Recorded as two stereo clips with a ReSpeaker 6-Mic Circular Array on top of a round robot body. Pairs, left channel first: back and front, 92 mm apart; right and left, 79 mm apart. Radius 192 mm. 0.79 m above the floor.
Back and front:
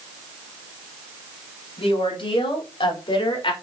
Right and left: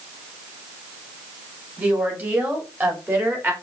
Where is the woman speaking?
155° left, 3.5 m; by 3.5 s 150° left, 2.5 m.